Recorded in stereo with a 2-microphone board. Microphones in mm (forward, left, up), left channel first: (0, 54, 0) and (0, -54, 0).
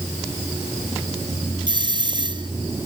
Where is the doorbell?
45° right (ahead or behind).